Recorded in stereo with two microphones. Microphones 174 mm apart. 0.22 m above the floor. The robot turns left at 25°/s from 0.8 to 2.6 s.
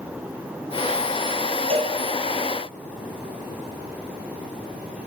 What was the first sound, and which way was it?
A cowbell, 35° right (ahead or behind).